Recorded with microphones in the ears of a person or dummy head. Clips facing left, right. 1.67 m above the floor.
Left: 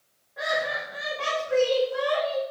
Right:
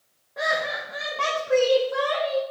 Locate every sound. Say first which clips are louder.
0.4 s laughter: right 1 dB; 60° right (ahead or behind), 1.8 m; by 2.4 s 80° right, 2.5 m